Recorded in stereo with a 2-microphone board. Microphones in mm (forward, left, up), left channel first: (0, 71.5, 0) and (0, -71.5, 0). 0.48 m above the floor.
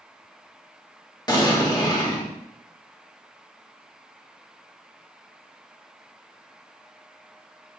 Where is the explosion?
30° left (ahead or behind), 1.1 m.